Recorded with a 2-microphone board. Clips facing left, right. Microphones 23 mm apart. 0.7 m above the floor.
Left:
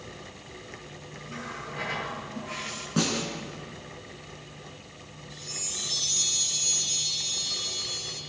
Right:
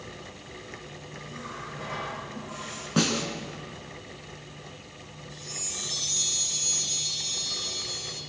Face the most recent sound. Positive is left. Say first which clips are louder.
# left 1 dB
turn(degrees=15)  # may be behind; listen again after turning